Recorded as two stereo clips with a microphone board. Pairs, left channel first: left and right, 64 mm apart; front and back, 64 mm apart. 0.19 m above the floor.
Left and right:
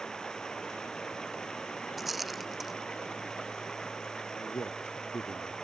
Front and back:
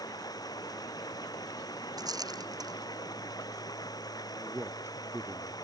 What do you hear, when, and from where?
0.0 s running water: 10° left
2.0 s a rattle: straight behind
4.3 s a man speaking: 125° left